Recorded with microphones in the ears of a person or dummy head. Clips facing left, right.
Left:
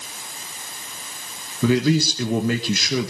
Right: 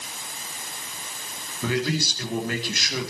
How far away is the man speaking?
About 2 m.